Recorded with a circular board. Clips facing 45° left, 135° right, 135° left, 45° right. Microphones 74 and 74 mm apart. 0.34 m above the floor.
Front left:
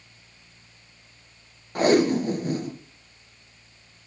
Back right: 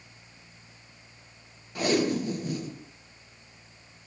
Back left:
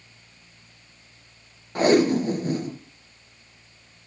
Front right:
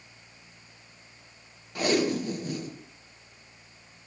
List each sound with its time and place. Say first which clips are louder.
1.8 s tape being pulled: front left 6 dB, back left 7 dB; 85° left, 2 m